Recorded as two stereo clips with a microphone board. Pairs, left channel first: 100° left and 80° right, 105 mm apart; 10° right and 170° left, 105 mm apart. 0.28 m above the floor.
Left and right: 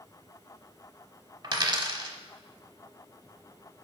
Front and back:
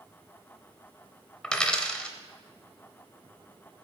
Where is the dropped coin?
90° right, 0.7 m.